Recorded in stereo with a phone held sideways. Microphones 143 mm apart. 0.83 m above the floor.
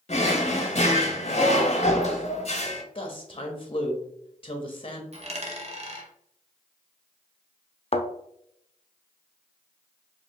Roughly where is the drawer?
Left.